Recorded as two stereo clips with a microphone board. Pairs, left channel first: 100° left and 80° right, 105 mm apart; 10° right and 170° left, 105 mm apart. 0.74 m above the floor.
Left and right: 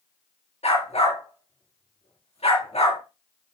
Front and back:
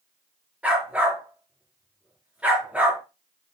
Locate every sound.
0.6 s a dog barking: 95° left, 5 m